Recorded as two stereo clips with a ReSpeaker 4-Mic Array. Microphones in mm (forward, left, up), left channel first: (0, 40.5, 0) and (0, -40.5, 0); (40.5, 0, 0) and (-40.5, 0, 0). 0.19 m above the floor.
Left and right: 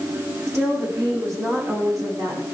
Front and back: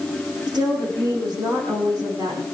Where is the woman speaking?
145° right, 10 m; by 2.4 s 135° right, 12 m.